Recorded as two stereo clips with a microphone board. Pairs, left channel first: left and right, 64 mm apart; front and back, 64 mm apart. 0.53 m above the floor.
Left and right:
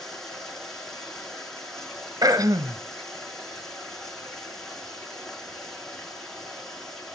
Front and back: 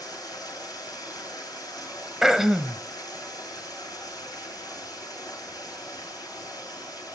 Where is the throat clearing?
95° right, 0.7 m.